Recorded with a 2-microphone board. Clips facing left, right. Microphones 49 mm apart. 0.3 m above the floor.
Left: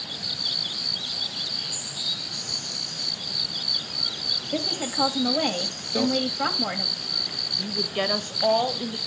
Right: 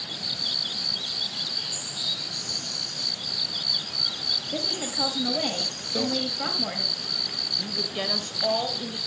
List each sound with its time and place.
4.5 s a woman speaking: 20° left (ahead or behind), 1.1 m
6.0 s a microwave: 10° left (ahead or behind), 1.0 m
7.6 s a woman speaking: 25° left (ahead or behind), 0.9 m